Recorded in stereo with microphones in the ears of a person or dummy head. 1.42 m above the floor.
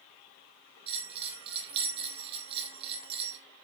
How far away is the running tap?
No running tap in this recording.